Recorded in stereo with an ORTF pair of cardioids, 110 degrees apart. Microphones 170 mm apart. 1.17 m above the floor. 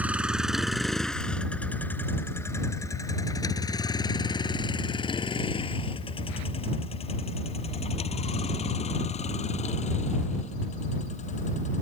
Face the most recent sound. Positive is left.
turn(degrees=45)